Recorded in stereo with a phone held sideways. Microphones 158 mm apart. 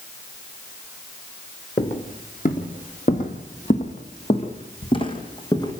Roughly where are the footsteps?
Left.